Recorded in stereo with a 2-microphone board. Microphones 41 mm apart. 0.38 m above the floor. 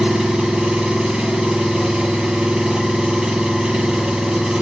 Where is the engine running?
15° right (ahead or behind), 1.5 m.